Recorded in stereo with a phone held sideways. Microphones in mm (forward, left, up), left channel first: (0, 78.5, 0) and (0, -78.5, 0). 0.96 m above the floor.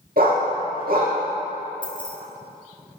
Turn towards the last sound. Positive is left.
turn(degrees=30)  # may be behind; listen again after turning